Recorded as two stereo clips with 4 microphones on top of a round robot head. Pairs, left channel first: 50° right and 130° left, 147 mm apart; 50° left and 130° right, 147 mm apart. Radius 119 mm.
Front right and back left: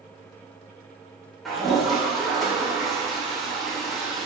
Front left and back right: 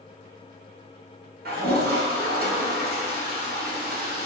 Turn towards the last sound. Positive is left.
turn(degrees=-140)